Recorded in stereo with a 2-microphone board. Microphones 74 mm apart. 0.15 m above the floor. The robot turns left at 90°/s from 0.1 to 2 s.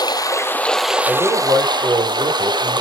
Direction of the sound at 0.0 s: 65° left.